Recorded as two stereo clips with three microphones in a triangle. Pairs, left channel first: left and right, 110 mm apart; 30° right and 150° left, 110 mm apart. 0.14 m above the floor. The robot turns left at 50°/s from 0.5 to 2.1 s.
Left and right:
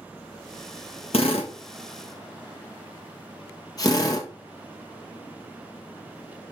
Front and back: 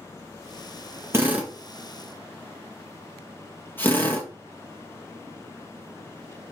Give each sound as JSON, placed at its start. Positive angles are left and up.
{"t": 1.1, "sound": "a drill", "azimuth_deg": 85, "distance_m": 2.5}